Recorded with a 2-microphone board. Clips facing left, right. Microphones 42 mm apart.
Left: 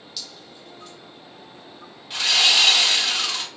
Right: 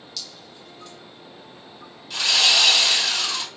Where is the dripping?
5° left (ahead or behind), 1.2 m.